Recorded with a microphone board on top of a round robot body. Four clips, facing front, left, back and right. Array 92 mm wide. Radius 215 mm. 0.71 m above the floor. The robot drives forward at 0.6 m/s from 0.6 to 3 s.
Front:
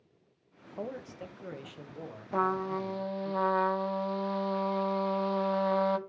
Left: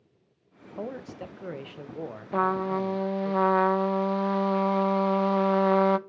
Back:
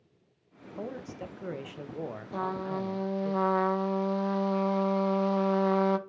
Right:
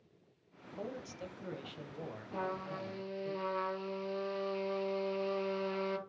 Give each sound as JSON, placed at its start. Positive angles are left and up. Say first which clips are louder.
{"t": 0.8, "sound": "a man speaking", "louder": "left 7 dB, back 1 dB", "azimuth_deg": 80, "distance_m": 1.1}
{"t": 2.3, "sound": "a trumpet", "louder": "left 14 dB, front 4 dB", "azimuth_deg": 65, "distance_m": 0.7}